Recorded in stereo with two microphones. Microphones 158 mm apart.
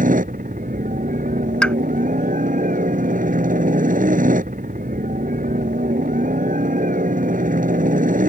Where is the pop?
5° left (ahead or behind).